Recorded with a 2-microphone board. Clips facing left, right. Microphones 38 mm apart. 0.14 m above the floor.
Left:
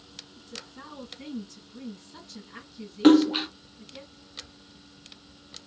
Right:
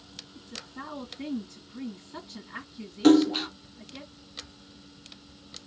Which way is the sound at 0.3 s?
20° right (ahead or behind).